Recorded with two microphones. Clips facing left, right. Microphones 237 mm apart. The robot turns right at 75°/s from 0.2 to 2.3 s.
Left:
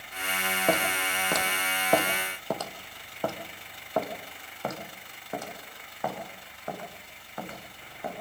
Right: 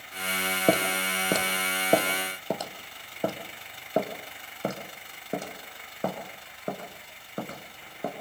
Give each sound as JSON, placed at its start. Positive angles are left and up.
{"t": 0.7, "sound": "footsteps", "side_deg": -35, "distance_m": 1.8}